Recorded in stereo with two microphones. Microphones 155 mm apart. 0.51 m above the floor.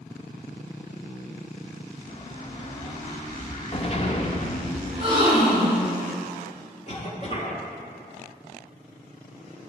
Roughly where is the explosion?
Left.